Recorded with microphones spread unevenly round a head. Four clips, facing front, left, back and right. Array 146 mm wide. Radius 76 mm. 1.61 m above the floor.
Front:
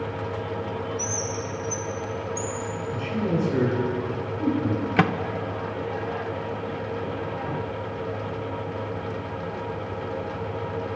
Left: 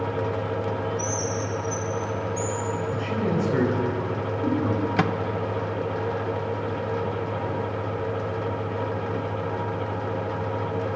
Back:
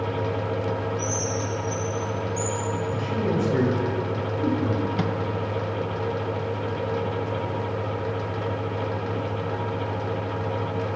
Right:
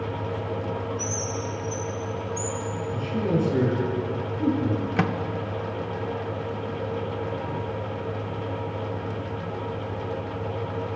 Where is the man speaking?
120° left, 8.5 m.